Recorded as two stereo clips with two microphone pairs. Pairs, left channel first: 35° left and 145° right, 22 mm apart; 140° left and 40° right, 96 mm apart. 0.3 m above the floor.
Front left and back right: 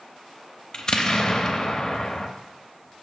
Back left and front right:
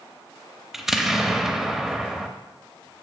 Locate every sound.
0.7 s an explosion: 45° left, 0.7 m